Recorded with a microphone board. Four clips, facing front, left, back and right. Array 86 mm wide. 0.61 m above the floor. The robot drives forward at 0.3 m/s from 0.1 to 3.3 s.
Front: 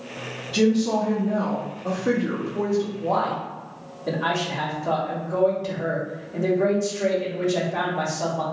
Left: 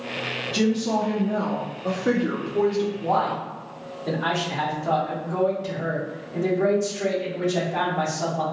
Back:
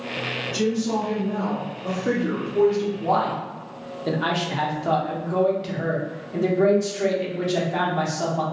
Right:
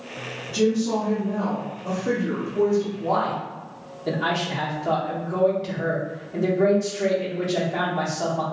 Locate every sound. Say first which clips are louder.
0.5 s a woman speaking: right 1 dB, front 4 dB; 30° left, 0.8 m; by 2.9 s 130° left, 0.7 m
3.0 s a man speaking: left 1 dB, back 1 dB; 160° right, 1.0 m; by 8.4 s 165° right, 1.1 m